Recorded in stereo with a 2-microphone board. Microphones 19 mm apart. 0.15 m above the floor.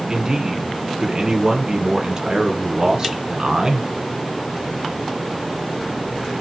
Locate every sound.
0.1 s a man speaking: 30° right (ahead or behind), 1.3 m